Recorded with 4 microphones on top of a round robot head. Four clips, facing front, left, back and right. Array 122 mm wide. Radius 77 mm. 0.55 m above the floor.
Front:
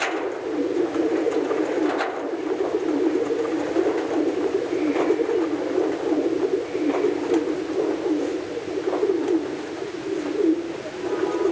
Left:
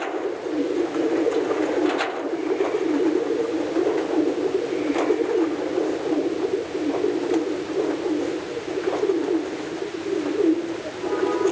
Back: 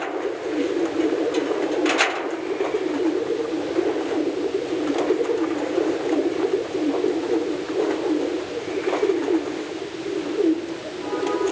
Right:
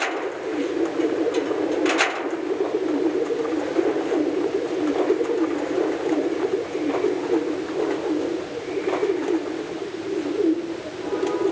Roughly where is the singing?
I don't hear singing.